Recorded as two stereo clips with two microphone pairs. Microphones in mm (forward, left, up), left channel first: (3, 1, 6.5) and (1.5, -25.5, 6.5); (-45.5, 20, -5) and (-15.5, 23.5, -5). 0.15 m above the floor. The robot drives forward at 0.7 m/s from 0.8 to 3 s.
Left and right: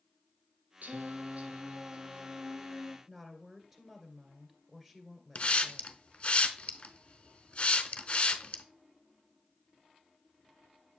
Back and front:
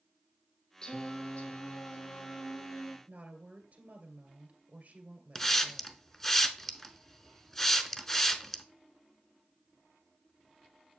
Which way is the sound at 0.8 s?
110° right.